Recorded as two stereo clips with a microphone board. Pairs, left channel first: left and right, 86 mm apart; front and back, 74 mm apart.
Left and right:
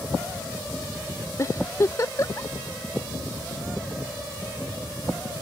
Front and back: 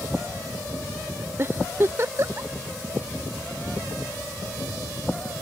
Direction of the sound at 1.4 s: 135° left.